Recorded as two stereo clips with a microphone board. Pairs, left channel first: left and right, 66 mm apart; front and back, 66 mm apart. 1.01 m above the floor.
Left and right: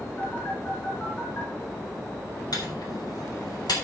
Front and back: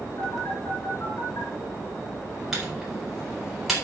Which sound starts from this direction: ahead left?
A phone buzzing, at 0.2 s.